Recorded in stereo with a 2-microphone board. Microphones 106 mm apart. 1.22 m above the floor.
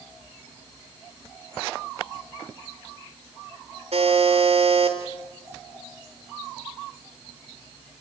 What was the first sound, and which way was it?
A buzzer, 80° right.